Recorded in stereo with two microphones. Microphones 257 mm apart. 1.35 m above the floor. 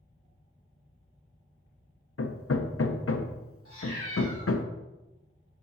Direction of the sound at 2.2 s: 60° left (ahead or behind).